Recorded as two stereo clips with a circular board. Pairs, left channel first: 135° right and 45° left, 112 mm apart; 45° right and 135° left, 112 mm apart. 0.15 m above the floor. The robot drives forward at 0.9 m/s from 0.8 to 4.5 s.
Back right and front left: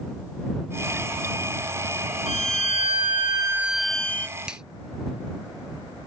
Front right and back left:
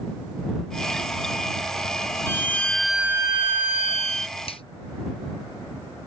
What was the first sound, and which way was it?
A violin, 25° left.